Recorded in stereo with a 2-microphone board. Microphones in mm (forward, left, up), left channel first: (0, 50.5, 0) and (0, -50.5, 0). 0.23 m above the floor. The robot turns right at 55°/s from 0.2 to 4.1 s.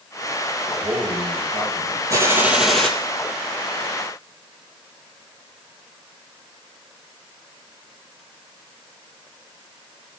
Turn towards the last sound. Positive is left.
turn(degrees=75)